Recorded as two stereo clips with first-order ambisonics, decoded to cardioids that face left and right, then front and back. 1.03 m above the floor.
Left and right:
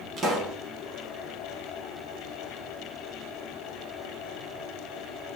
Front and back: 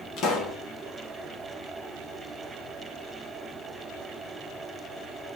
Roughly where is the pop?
Ahead right.